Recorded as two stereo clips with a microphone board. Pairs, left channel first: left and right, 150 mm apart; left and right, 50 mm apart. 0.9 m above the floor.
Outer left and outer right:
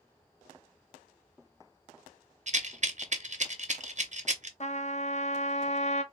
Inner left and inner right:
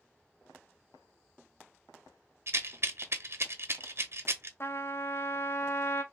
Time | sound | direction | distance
2.5 | a rattle | 55° right (ahead or behind) | 0.8 m
4.6 | a trumpet | 50° left (ahead or behind) | 0.7 m